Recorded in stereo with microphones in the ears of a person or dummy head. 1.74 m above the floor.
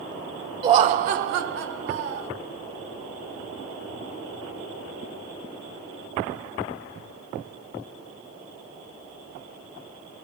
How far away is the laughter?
About 0.5 m.